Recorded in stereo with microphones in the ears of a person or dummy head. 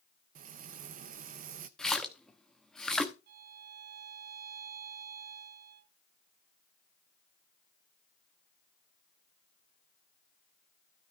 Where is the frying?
45° right (ahead or behind), 0.6 m.